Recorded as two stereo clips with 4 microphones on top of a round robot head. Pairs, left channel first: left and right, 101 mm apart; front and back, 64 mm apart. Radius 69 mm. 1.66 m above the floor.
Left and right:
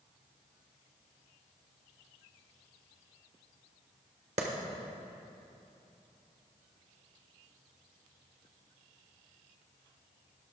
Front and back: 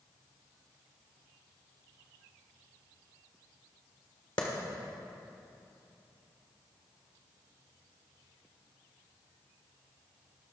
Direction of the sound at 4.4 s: 55° right.